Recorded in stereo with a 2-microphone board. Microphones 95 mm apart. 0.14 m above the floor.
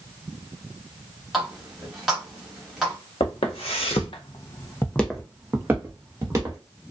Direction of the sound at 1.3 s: 5° right (ahead or behind).